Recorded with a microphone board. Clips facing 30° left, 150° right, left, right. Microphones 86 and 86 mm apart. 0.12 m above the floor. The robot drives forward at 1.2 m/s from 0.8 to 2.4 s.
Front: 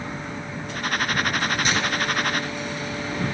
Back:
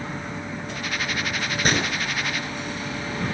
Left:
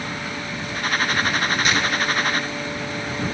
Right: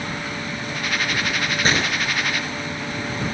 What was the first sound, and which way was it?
A gunshot, 135° right.